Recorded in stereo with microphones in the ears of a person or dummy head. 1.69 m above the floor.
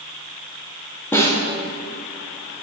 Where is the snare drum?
15° left (ahead or behind), 1.7 m.